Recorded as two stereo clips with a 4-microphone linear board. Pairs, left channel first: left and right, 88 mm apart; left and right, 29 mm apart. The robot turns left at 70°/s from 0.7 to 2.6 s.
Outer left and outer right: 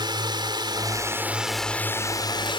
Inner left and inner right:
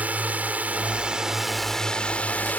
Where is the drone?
120° right; by 2.6 s 105° left.